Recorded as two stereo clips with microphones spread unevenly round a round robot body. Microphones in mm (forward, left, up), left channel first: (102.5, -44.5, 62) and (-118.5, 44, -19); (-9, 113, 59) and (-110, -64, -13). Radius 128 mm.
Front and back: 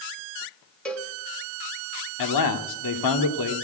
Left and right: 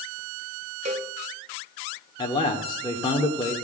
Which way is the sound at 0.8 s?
125° right.